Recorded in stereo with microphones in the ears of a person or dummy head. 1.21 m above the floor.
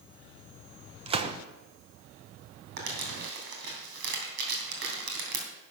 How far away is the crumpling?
About 3 m.